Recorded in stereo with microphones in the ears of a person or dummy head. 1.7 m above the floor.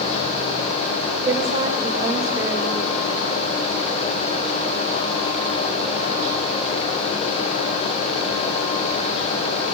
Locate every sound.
1.2 s a woman speaking: 15° right (ahead or behind), 2 m